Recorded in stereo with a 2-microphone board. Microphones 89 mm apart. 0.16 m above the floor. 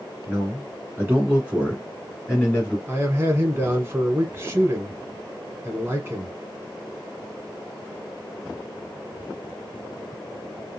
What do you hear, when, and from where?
0.3 s a man speaking: 30° right (ahead or behind), 2 m; by 2.8 s 10° left (ahead or behind), 1.6 m
2.9 s a man speaking: 25° right (ahead or behind), 1.2 m